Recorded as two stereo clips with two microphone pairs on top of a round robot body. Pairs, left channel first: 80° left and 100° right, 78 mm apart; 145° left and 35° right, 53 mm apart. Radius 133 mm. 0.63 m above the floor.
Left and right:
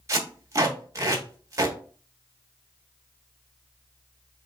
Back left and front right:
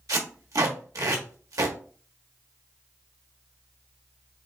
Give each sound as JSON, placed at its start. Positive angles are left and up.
{"t": 0.1, "sound": "tape being pulled", "azimuth_deg": -50, "distance_m": 1.3}